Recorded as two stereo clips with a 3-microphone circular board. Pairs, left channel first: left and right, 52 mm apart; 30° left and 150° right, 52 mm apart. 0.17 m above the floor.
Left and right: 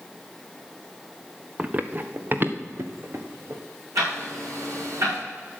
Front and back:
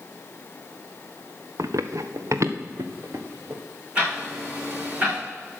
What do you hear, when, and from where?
1.6 s running footsteps: 150° right, 0.9 m; by 3.6 s 125° right, 2 m
4.0 s ticking: 80° right, 7 m